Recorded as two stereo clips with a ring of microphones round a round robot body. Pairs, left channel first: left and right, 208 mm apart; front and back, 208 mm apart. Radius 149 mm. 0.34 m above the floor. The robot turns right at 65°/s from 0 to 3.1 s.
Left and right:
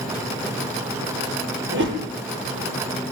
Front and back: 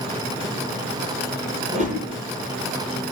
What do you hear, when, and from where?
1.7 s a whoosh: 70° right, 9 m; by 2.0 s 50° right, 9 m